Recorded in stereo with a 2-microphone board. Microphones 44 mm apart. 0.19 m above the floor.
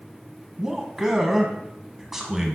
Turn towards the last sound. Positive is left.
turn(degrees=-10)  # may be behind; listen again after turning